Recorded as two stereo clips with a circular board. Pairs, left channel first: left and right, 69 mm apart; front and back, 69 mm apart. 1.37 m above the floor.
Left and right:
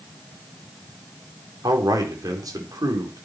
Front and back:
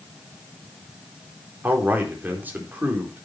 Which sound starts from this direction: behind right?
A man speaking, at 1.6 s.